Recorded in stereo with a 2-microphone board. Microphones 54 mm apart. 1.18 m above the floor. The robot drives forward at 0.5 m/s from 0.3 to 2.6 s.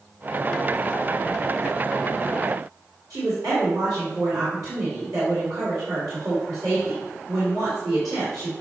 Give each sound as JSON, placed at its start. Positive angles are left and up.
{"t": 3.1, "sound": "a woman speaking", "side_deg": -85, "distance_m": 3.5}